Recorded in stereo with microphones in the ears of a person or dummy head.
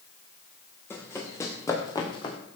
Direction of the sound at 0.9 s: 15° left (ahead or behind).